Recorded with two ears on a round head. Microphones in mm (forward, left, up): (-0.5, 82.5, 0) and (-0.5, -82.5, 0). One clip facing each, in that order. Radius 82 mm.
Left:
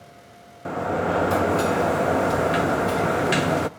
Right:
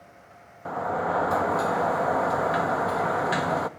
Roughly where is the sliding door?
Left.